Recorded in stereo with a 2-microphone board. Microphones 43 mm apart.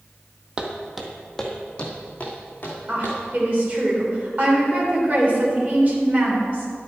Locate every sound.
0.6 s footsteps: 20° right (ahead or behind), 1.4 m; by 3.2 s 40° left (ahead or behind), 3.5 m
2.9 s a woman speaking: 35° right (ahead or behind), 3 m